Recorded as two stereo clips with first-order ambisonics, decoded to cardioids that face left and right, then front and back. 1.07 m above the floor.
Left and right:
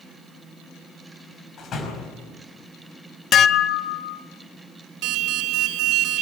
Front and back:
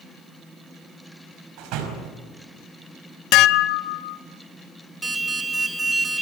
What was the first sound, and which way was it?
A door slam, 150° left.